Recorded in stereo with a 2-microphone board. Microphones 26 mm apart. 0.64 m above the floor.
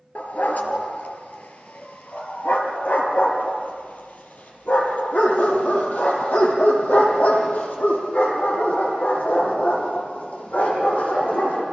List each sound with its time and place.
0.1 s a dog barking: 70° left (ahead or behind), 3 m